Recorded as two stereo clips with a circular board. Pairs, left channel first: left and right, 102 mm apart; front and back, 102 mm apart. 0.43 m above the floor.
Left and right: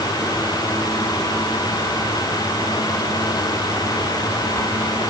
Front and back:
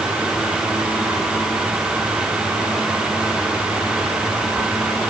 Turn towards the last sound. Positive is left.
No sound to turn to.